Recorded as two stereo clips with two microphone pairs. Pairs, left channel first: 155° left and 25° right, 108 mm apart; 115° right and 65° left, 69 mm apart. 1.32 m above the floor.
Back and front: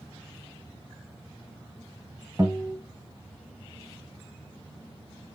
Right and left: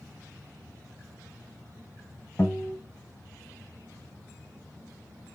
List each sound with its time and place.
2.4 s a guitar: 70° right, 1.6 m